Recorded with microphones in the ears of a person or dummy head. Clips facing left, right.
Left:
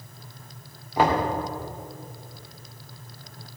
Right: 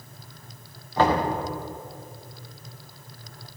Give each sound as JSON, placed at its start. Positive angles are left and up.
{"t": 1.0, "sound": "knocking", "side_deg": 10, "distance_m": 2.0}